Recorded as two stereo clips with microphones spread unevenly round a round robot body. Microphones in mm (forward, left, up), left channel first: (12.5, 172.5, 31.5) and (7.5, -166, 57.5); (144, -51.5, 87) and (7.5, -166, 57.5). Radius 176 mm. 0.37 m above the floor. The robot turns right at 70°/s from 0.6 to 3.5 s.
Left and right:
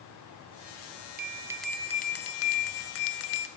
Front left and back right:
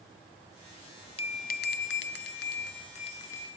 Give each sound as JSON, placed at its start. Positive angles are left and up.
{"t": 1.2, "sound": "a bell", "azimuth_deg": -30, "distance_m": 0.5}